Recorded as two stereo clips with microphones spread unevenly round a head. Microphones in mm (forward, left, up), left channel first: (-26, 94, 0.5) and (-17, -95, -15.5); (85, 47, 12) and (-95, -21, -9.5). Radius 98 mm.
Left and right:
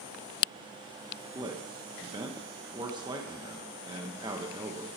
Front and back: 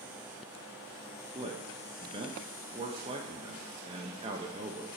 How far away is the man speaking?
About 0.6 m.